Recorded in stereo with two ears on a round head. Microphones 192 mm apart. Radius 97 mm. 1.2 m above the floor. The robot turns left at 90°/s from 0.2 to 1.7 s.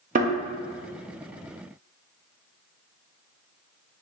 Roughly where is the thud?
Right.